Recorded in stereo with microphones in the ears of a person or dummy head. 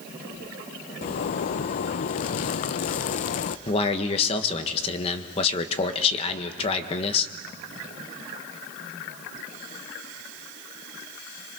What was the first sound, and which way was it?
A zipper, 35° left (ahead or behind).